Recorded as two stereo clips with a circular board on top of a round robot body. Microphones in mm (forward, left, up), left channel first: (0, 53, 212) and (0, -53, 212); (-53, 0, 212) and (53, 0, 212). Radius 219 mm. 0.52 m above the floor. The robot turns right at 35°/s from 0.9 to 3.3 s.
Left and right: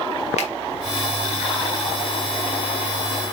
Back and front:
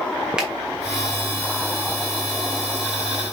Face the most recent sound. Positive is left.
turn(degrees=170)